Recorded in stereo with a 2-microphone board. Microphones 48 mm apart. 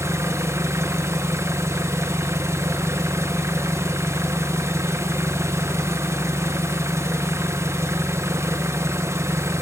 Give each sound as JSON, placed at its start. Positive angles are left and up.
{"t": 0.0, "sound": "an engine running", "side_deg": -75, "distance_m": 1.0}